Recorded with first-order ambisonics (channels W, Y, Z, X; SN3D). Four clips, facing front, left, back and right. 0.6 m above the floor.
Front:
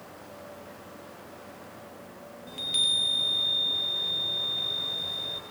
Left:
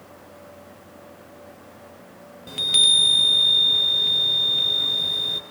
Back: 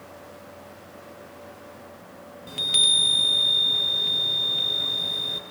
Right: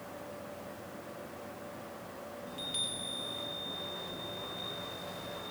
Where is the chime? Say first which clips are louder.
Left 21 dB, back 6 dB; 120° left, 0.7 m.